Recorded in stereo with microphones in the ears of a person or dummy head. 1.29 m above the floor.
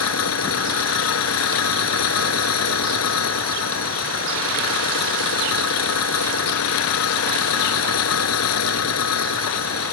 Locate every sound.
0.0 s an engine running: 85° left